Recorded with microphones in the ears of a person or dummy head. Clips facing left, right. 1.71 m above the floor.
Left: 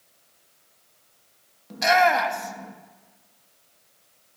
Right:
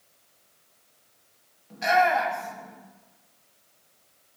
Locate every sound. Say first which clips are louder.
1.7 s a shout: left 2 dB; 70° left (ahead or behind), 2 m